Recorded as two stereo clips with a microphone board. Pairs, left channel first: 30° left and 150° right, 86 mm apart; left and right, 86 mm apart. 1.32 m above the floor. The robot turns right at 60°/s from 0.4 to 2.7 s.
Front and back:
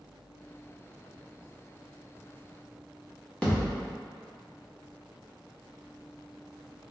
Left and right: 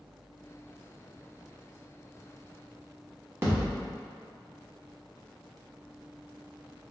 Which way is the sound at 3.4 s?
45° right.